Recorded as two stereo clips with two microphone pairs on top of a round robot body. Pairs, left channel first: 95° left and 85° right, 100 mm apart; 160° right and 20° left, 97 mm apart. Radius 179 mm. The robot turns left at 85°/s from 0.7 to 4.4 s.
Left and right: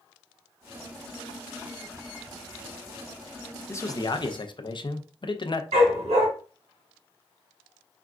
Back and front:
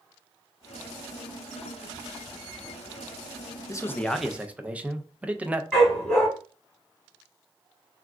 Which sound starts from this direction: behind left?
A man speaking, at 3.7 s.